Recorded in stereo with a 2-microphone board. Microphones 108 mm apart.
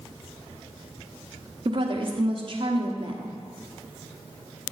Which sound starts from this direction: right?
A woman speaking, at 1.6 s.